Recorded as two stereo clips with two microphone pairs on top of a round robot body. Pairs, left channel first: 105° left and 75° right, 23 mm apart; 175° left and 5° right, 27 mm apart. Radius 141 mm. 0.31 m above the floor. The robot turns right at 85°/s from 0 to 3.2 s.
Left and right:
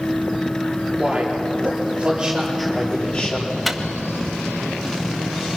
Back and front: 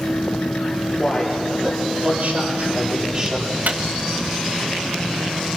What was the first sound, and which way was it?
A man speaking, 120° right.